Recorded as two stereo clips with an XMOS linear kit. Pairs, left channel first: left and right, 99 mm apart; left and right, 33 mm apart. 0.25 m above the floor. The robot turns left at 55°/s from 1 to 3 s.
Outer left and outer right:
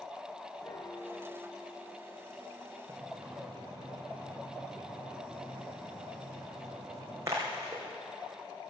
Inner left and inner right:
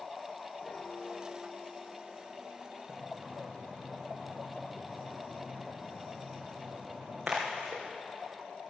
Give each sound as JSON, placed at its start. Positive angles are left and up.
{"t": 0.6, "sound": "a piano", "azimuth_deg": 140, "distance_m": 0.8}
{"t": 2.9, "sound": "a splash", "side_deg": -25, "distance_m": 3.5}